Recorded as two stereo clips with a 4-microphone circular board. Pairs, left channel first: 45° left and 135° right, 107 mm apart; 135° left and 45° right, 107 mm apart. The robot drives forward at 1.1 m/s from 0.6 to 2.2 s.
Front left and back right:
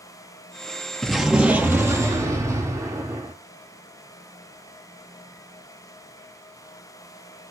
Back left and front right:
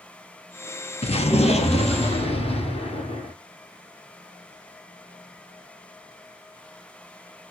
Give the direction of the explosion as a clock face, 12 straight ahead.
8 o'clock.